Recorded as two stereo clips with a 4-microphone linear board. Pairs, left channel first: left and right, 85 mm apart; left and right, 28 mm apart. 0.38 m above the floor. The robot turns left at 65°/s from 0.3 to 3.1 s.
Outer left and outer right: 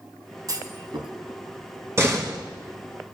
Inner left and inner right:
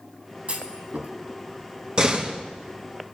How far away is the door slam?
About 2.5 m.